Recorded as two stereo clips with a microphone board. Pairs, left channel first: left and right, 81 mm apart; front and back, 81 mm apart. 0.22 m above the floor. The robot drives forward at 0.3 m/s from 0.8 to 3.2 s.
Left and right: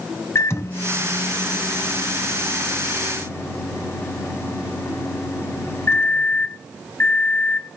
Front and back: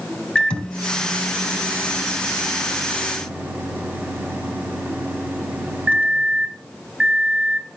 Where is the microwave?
70° left, 1.1 m; by 7.8 s 125° left, 1.2 m.